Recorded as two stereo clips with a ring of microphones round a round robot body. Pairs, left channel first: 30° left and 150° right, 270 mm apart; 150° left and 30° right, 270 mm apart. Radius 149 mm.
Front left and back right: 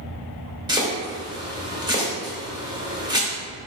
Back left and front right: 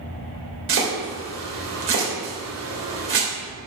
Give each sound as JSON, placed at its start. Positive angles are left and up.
{"t": 0.7, "sound": "chopping", "azimuth_deg": -75, "distance_m": 3.0}